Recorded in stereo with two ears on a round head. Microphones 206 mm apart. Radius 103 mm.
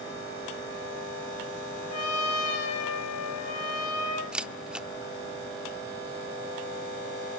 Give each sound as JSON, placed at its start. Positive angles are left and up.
{"t": 1.9, "sound": "a trumpet", "side_deg": 80, "distance_m": 5.5}
{"t": 4.3, "sound": "a camera shutter", "side_deg": -5, "distance_m": 0.6}